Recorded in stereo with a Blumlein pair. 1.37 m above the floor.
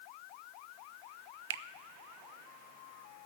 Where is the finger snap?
60° right, 0.6 m.